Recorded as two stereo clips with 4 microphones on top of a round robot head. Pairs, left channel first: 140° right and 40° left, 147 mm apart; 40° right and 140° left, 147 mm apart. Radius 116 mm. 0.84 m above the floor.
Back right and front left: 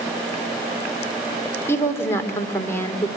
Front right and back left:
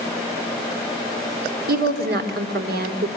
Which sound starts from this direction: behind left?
A woman speaking, at 1.7 s.